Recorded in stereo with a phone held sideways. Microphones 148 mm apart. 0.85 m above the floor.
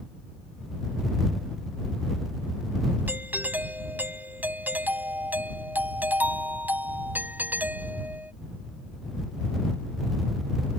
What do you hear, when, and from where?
3.1 s a doorbell: 10° right (ahead or behind)